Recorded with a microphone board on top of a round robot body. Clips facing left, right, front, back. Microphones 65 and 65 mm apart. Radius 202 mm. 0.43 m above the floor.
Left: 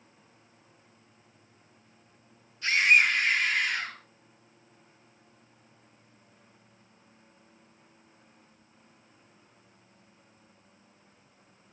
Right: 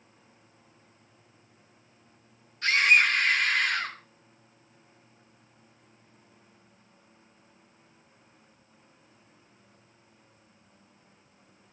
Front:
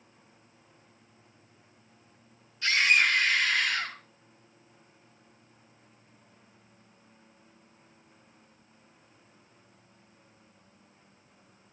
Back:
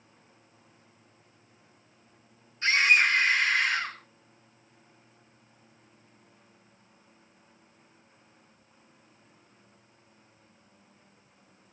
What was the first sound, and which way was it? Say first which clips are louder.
A scream: right 1 dB, back 2 dB; 125° right.